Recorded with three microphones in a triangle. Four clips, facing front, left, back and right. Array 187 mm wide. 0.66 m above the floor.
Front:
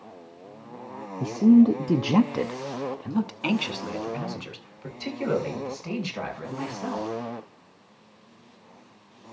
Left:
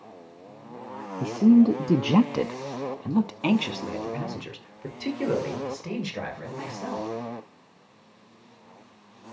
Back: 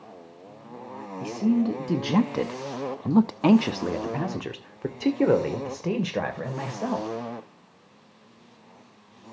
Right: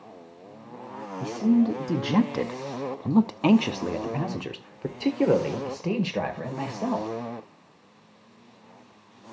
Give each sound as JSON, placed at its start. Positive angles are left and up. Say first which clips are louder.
{"t": 1.2, "sound": "a man speaking", "louder": "left 4 dB, front 7 dB", "azimuth_deg": 45, "distance_m": 1.1}